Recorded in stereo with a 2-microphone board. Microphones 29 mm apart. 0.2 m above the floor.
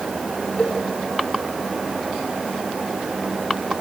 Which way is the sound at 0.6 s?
30° left (ahead or behind).